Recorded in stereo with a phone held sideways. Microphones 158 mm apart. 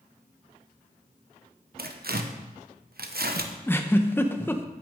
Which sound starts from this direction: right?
Tearing paper, at 1.8 s.